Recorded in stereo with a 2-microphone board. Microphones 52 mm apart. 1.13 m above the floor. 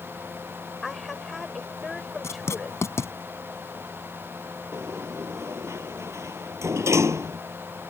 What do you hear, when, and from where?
0.8 s a woman speaking: centre (ahead or behind)
2.2 s writing: 65° left (ahead or behind)
4.7 s a sliding door: 60° right (ahead or behind)